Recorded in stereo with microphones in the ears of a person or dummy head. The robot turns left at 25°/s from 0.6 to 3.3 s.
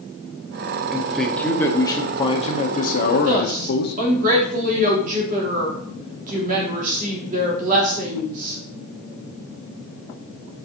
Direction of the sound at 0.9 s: 170° right.